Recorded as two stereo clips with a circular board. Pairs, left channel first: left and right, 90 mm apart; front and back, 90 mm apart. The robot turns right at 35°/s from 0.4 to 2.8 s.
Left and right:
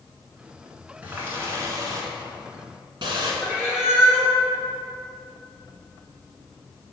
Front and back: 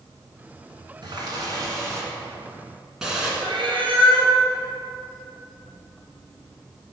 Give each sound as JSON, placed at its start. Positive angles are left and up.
{"t": 1.0, "sound": "a running tap", "azimuth_deg": -160, "distance_m": 1.5}
{"t": 3.4, "sound": "a cat meowing", "azimuth_deg": -170, "distance_m": 1.6}